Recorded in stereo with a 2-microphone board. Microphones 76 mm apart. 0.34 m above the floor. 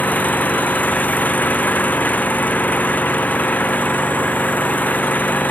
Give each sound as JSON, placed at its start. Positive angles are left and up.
{"t": 0.0, "sound": "an engine running", "side_deg": 20}